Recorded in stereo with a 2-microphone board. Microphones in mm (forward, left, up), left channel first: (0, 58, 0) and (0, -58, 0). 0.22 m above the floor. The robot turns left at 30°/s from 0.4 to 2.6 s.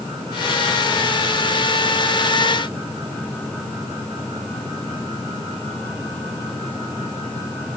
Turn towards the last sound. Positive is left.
No sound to turn to.